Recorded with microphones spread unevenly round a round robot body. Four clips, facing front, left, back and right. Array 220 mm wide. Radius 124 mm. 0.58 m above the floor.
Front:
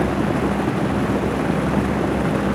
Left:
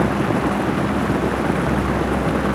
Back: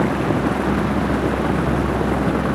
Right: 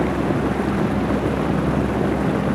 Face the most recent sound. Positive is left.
No sound to turn to.